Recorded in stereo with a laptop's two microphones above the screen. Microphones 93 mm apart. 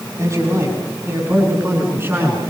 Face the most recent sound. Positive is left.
turn(degrees=-25)  # may be behind; listen again after turning